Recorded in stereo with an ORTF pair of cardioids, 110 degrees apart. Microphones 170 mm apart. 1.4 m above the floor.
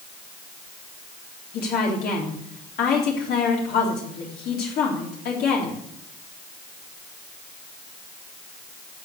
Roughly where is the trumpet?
I don't hear a trumpet.